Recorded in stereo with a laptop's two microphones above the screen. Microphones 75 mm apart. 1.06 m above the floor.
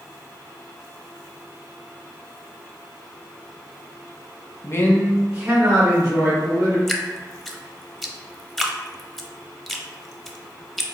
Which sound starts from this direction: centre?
Dripping, at 6.9 s.